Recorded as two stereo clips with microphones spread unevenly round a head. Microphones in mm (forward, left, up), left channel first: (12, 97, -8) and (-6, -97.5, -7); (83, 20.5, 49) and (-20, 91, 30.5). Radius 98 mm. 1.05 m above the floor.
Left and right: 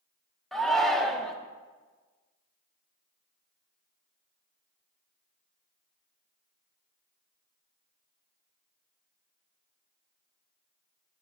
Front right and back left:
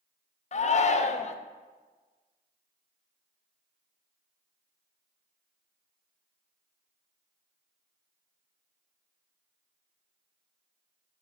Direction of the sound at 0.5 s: 5° right.